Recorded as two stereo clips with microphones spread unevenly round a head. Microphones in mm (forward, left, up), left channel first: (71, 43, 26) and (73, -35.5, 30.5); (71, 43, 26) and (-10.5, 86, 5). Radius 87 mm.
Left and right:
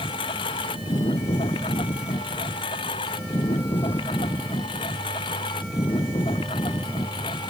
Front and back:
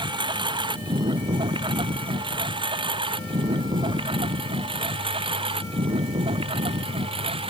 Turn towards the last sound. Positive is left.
turn(degrees=135)